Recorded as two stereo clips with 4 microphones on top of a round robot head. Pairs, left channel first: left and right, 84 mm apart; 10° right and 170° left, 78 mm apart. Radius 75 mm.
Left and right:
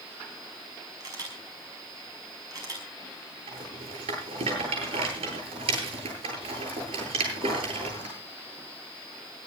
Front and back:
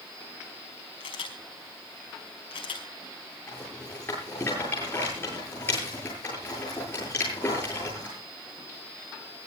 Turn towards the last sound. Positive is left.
turn(degrees=-75)